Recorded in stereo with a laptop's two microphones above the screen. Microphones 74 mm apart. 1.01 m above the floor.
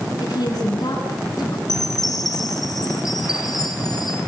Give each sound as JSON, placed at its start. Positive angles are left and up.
{"t": 0.2, "sound": "a woman speaking", "side_deg": 60, "distance_m": 9.0}
{"t": 1.7, "sound": "a chime", "side_deg": 60, "distance_m": 5.0}